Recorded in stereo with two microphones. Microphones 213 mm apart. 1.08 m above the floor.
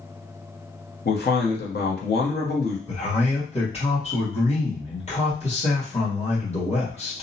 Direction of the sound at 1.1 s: 50° left (ahead or behind).